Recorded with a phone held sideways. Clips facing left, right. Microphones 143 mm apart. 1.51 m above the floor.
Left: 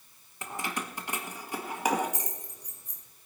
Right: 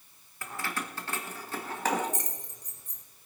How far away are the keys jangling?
About 1.1 m.